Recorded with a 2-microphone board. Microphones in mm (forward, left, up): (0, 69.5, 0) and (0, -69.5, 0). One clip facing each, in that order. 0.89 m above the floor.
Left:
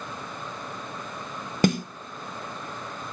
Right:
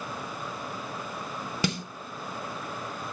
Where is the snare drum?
45° left (ahead or behind), 0.9 m.